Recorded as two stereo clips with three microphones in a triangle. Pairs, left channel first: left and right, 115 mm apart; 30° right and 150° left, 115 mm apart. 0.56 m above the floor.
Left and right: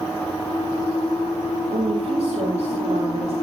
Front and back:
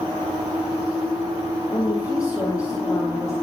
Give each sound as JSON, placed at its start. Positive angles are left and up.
{"t": 1.7, "sound": "a woman speaking", "azimuth_deg": -85, "distance_m": 4.0}